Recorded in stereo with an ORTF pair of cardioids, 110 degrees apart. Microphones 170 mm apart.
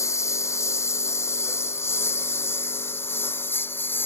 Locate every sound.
0.0 s a lawn mower: 15° left